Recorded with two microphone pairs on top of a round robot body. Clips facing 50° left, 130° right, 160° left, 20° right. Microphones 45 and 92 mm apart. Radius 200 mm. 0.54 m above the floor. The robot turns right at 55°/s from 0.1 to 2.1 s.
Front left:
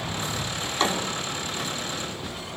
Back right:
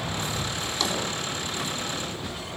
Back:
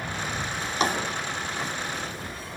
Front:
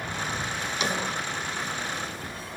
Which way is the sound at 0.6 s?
100° left.